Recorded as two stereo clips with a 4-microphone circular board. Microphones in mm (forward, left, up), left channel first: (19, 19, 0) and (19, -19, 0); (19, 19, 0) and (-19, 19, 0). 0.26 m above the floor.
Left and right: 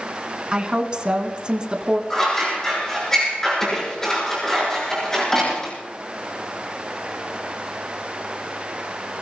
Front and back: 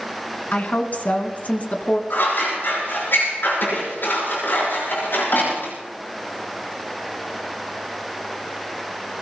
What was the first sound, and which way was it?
A woman speaking, 30° right.